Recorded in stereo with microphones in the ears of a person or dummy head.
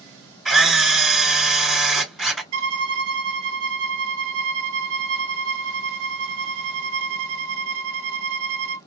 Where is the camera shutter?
Centre (ahead or behind), 2.5 m.